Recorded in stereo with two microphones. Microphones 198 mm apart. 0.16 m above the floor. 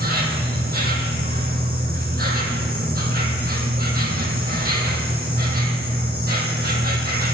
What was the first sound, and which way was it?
An insect, 50° right (ahead or behind).